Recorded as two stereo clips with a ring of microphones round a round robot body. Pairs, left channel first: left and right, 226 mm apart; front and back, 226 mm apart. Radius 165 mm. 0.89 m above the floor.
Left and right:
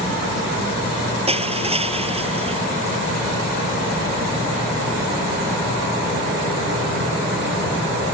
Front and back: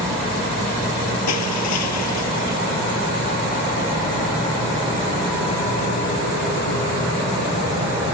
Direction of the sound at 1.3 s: 25° right.